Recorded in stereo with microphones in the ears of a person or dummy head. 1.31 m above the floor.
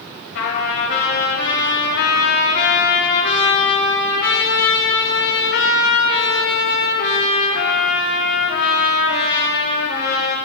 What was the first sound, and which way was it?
A trumpet, 70° left (ahead or behind).